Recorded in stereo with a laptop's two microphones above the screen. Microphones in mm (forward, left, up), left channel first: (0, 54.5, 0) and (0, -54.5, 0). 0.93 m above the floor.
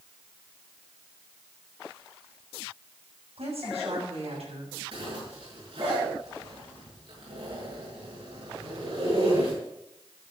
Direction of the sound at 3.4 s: 75° right (ahead or behind).